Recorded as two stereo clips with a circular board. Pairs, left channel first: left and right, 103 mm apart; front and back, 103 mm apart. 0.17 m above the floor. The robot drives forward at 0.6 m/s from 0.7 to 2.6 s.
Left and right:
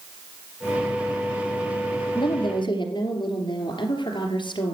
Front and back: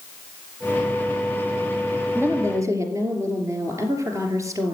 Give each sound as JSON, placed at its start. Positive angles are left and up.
{"t": 2.1, "sound": "a woman speaking", "azimuth_deg": 115, "distance_m": 2.5}